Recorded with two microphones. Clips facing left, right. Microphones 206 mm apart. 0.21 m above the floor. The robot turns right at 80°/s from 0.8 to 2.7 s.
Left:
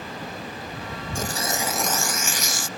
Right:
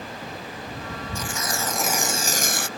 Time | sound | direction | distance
1.1 | tearing paper | 130° left | ?